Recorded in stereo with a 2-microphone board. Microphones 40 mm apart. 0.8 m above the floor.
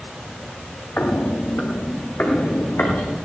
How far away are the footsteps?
About 2.5 m.